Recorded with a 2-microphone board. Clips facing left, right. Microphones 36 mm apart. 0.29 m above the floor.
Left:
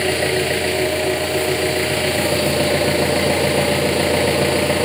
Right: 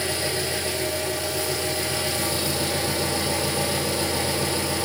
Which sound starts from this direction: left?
An engine running, at 0.0 s.